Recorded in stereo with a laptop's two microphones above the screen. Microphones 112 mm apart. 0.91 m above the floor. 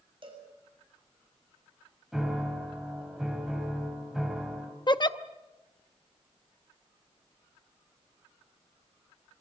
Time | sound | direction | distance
0.2 | a cowbell | 50° right (ahead or behind) | 6.5 m
2.1 | a piano | 5° right (ahead or behind) | 5 m
4.9 | a giggle | 40° left (ahead or behind) | 0.7 m